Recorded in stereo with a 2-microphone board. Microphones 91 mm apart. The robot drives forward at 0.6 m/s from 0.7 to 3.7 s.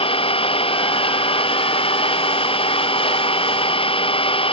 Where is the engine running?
85° left; by 4.5 s 80° left.